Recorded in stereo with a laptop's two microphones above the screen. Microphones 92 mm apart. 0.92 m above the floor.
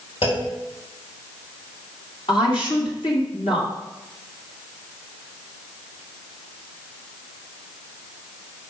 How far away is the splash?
I don't hear a splash.